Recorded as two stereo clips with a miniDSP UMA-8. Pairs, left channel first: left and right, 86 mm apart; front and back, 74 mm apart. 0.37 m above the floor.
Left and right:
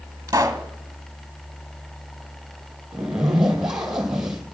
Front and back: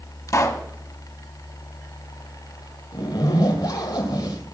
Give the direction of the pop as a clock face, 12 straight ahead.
1 o'clock.